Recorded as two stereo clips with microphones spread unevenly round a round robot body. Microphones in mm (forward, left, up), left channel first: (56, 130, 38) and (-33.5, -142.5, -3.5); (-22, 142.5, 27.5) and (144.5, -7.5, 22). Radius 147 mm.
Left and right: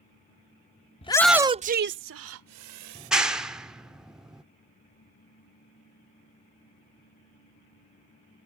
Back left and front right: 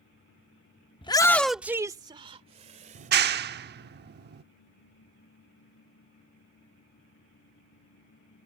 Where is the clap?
30° right.